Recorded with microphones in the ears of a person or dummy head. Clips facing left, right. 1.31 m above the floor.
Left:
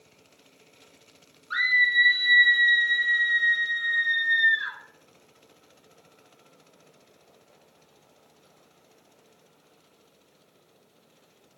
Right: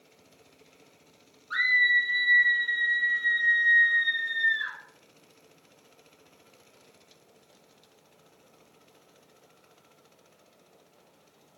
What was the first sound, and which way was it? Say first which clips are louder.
A scream: left 1 dB; 5° right (ahead or behind).